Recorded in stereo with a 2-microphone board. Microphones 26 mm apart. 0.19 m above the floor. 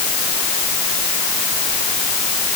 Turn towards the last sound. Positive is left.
No sound to turn to.